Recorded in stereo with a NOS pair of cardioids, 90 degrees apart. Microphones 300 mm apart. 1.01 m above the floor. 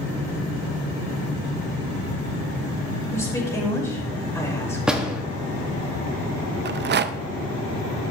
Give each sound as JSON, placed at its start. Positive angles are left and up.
{"t": 3.1, "sound": "a woman speaking", "azimuth_deg": 10, "distance_m": 4.5}
{"t": 4.9, "sound": "a door slam", "azimuth_deg": -5, "distance_m": 1.4}
{"t": 6.7, "sound": "a rattle", "azimuth_deg": -35, "distance_m": 0.5}